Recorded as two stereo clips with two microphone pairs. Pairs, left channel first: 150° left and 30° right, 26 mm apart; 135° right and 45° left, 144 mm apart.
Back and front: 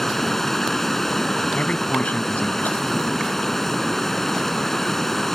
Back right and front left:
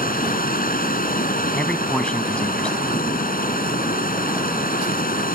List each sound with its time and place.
0.0 s running water: 130° right
1.5 s a man speaking: 140° left